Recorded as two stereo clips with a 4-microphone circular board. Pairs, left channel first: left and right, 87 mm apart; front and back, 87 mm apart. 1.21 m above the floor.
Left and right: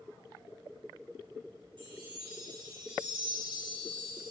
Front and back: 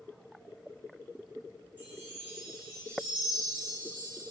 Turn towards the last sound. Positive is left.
turn(degrees=-65)